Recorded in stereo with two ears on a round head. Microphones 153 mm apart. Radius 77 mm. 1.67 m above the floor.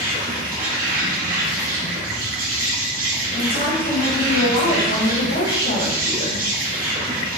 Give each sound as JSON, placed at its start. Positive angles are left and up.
{"t": 0.0, "sound": "an insect", "side_deg": -55, "distance_m": 1.4}
{"t": 3.3, "sound": "a woman speaking", "side_deg": 85, "distance_m": 1.8}